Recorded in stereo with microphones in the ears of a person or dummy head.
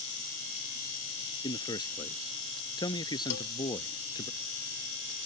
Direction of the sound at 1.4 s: 20° left (ahead or behind).